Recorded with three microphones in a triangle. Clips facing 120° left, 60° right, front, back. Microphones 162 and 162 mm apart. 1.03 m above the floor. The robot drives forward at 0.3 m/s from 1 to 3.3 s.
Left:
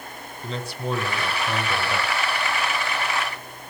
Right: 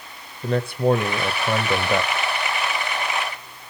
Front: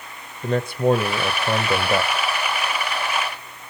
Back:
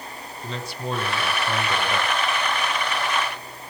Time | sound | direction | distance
0.4 | a man speaking | 30° right | 1.4 m